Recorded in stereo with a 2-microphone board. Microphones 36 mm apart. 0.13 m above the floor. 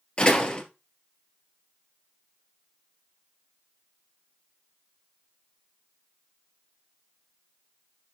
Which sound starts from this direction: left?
A door slam, at 0.2 s.